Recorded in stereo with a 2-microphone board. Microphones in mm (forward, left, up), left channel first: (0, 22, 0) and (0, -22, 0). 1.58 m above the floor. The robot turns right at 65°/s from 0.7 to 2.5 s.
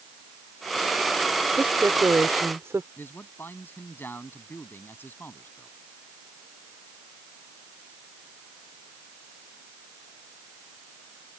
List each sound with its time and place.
1.6 s a woman speaking: 135° right; by 2.9 s 75° right
3.0 s a man speaking: 50° left (ahead or behind)